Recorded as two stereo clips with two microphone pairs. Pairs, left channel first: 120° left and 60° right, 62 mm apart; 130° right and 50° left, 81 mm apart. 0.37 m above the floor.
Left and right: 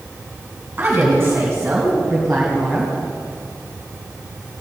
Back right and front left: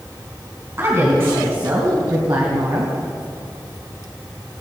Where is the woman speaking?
5° right, 3.5 m; by 2.9 s 40° left, 3 m.